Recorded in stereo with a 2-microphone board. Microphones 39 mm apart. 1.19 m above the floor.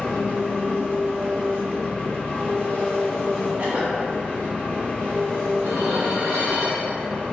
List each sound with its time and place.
0.0 s an engine running: 35° left (ahead or behind), 0.9 m
3.6 s a cough: 40° right (ahead or behind), 0.8 m
5.6 s dishes clattering: 65° right (ahead or behind), 0.8 m